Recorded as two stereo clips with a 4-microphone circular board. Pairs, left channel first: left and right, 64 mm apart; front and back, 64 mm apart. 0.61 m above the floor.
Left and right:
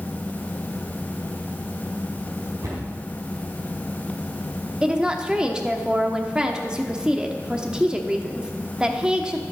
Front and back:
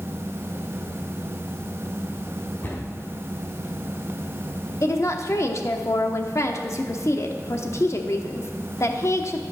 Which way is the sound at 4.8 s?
20° right.